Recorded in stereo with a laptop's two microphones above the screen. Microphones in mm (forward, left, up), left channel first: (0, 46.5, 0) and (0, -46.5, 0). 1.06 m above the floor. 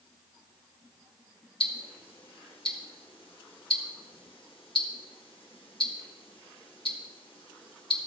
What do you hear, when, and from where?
1.6 s ticking: 70° left (ahead or behind), 1.5 m